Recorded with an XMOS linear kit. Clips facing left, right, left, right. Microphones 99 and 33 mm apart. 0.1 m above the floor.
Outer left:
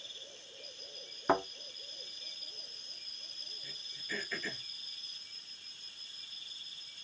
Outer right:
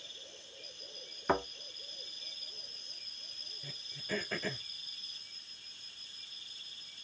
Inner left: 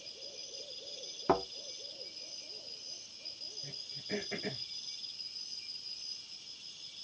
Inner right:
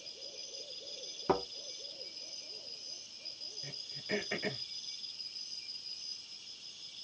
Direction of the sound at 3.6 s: 50° right (ahead or behind).